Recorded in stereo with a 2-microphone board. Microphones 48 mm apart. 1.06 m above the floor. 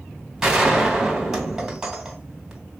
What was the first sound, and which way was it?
A gunshot, 10° right (ahead or behind).